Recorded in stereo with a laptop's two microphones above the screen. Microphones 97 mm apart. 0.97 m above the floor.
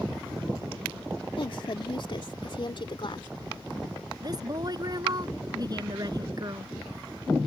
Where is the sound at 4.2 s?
45° right (ahead or behind).